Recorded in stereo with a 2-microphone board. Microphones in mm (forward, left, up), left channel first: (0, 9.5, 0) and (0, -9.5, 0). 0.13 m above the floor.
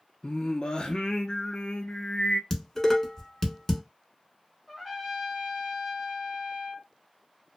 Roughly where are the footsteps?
I don't hear footsteps.